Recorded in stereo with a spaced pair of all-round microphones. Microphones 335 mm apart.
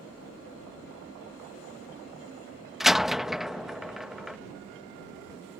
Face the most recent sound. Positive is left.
turn(degrees=0)  # may be behind; listen again after turning